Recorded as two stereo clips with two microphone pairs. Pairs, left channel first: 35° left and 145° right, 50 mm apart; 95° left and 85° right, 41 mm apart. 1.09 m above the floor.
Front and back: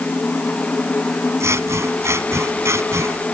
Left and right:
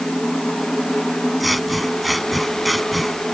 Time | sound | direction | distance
1.4 | scissors | 170° right | ?